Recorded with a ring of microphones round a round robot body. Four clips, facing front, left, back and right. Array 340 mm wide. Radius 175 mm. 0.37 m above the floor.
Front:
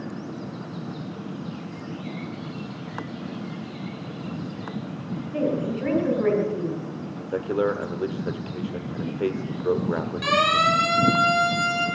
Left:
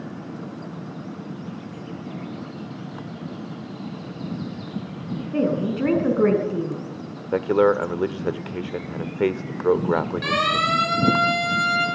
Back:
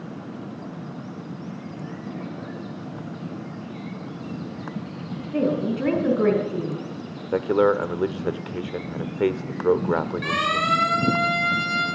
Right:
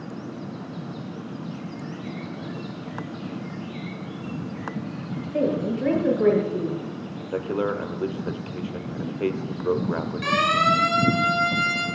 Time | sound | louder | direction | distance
5.3 | a woman speaking | left 1 dB, back 2 dB | 115° left | 5.5 m
7.3 | a man speaking | left 8 dB, back 5 dB | 125° left | 1.1 m
10.2 | a siren | right 1 dB, front 3 dB | 35° left | 9.5 m